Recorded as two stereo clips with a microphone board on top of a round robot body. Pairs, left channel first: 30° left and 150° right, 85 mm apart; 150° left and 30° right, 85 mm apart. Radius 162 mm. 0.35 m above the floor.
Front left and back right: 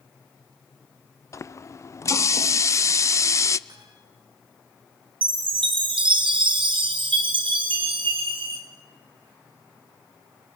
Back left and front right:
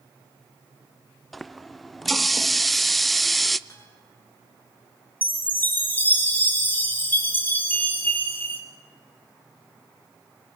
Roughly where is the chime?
Behind right.